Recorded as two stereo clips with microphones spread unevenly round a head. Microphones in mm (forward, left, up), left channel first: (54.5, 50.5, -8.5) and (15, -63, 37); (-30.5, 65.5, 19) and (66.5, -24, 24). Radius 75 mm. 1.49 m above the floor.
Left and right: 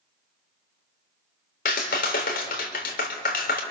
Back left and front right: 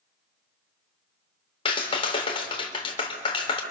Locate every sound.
1.6 s a clap: 90° left, 3.5 m